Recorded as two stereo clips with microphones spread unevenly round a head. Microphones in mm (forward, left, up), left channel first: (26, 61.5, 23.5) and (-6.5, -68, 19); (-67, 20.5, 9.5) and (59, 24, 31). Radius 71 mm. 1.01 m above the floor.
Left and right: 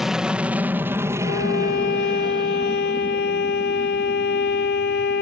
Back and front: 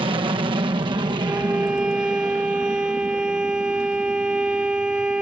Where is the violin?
85° left.